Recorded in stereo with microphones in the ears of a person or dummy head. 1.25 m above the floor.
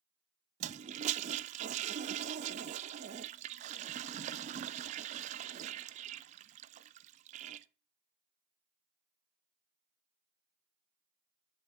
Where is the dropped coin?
I don't hear a dropped coin.